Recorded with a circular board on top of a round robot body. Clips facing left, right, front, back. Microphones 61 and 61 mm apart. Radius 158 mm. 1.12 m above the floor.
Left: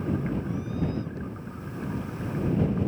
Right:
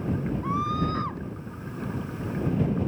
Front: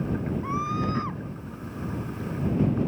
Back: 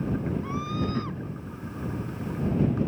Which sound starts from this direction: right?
A scream, at 0.4 s.